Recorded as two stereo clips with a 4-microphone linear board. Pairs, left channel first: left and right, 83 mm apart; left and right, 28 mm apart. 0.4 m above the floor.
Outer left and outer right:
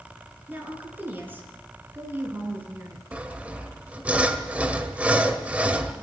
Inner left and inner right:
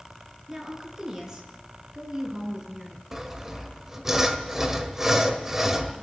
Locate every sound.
0.5 s a woman speaking: 25° right (ahead or behind), 6 m; by 3.1 s 30° right (ahead or behind), 4.5 m
3.1 s sawing: 15° right (ahead or behind), 1.8 m